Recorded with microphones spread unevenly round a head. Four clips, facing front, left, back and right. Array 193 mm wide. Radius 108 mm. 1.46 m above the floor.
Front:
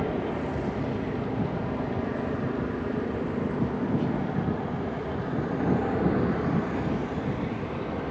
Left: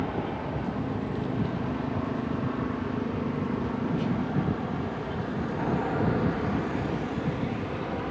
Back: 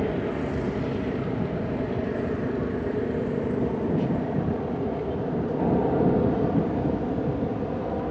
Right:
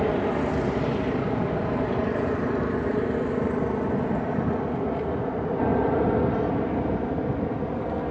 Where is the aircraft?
130° right; by 8.1 s 155° right.